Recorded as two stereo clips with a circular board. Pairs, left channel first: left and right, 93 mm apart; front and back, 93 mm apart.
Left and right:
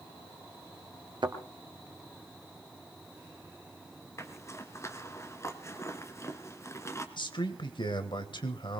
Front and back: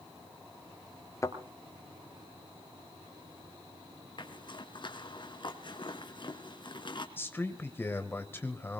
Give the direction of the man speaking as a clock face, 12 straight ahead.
10 o'clock.